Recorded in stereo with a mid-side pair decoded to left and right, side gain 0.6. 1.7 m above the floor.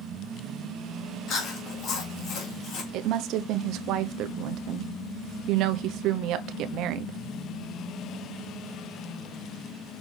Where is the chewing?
55° left, 2.5 m.